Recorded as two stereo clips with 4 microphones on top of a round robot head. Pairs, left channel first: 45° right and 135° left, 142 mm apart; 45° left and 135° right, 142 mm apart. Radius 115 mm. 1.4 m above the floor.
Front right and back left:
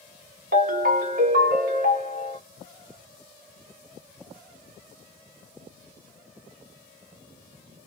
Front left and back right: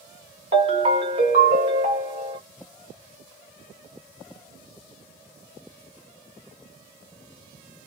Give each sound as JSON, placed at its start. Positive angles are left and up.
{"t": 0.5, "sound": "a ringtone", "azimuth_deg": 170, "distance_m": 1.0}